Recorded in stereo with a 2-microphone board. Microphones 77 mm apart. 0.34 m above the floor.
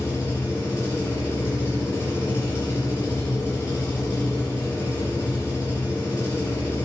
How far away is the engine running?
About 4.5 m.